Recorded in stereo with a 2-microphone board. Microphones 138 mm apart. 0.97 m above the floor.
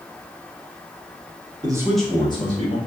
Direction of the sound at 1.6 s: 30° right (ahead or behind).